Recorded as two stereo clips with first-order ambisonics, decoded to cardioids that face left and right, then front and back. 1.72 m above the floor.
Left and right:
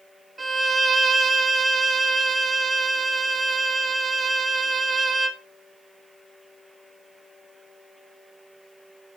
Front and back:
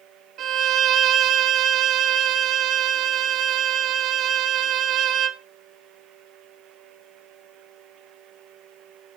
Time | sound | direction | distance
0.4 | a violin | 165° right | 1.1 m